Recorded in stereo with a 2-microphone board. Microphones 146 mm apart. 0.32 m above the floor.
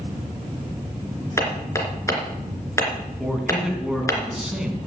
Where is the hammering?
20° left (ahead or behind), 3 m.